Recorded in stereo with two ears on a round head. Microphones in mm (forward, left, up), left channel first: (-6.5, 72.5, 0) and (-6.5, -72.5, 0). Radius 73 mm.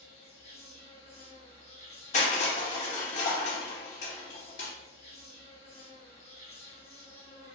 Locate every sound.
0.0 s an insect: 40° left (ahead or behind), 1.3 m
2.1 s crushing: 45° left (ahead or behind), 0.7 m